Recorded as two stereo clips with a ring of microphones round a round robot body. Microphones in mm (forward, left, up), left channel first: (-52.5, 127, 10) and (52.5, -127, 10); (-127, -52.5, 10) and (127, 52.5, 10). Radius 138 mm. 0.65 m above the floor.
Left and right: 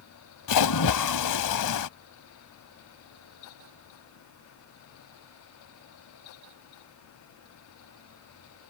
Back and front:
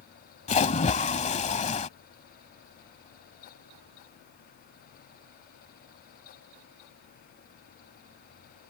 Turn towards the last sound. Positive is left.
turn(degrees=135)